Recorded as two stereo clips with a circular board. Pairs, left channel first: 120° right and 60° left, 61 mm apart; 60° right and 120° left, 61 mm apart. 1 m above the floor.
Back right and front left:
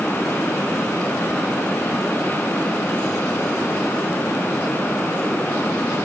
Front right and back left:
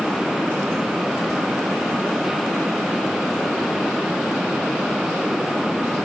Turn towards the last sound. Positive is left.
No sound to turn to.